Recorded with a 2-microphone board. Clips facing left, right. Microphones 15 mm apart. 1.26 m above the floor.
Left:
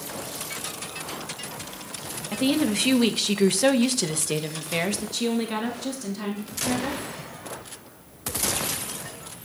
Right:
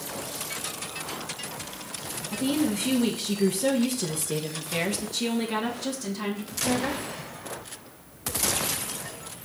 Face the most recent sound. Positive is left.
turn(degrees=-5)  # may be behind; listen again after turning